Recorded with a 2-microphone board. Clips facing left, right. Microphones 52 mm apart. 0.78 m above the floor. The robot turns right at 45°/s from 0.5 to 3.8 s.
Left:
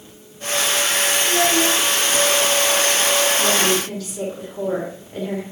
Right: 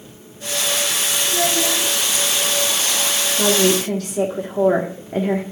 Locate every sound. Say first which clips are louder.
1.2 s a child speaking: left 2 dB; 35° left (ahead or behind), 3.5 m; by 1.9 s 65° left (ahead or behind), 3.5 m
3.4 s a woman speaking: right 2 dB; 65° right (ahead or behind), 1.6 m